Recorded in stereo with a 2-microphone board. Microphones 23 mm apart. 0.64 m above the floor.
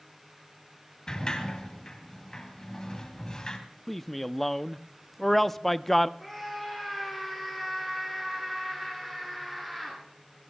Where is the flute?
I don't hear a flute.